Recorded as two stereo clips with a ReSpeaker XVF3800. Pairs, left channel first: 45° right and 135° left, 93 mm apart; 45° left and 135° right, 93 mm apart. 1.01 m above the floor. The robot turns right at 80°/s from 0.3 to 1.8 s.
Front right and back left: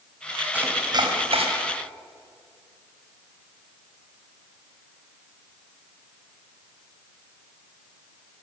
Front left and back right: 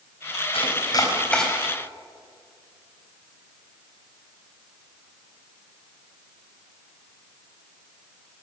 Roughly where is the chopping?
Ahead left.